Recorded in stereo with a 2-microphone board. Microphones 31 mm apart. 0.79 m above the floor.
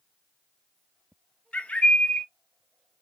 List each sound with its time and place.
1.5 s a bird: 45° left (ahead or behind), 0.6 m